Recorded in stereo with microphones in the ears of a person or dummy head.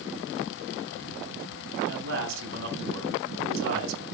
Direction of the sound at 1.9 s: 85° right.